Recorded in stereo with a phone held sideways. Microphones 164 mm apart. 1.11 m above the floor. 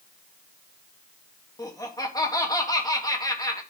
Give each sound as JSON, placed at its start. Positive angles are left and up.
{"t": 1.6, "sound": "laughter", "side_deg": 25, "distance_m": 1.9}